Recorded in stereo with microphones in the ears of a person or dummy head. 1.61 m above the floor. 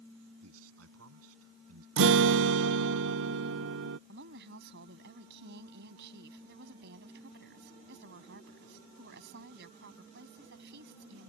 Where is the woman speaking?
60° right (ahead or behind).